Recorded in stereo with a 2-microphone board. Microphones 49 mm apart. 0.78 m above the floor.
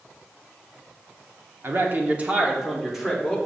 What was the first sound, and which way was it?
A man speaking, 50° right (ahead or behind).